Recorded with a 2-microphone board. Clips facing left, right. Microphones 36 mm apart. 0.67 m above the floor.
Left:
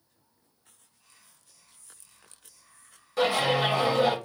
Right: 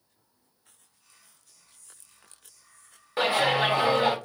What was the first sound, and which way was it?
Whispering, 25° left (ahead or behind).